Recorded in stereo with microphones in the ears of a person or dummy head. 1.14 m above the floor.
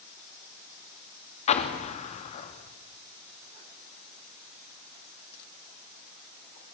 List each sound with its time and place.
1.5 s an explosion: 35° left (ahead or behind), 2 m